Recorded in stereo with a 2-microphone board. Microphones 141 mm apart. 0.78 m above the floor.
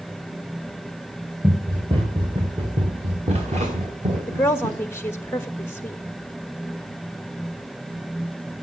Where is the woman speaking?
20° left (ahead or behind), 1.0 m.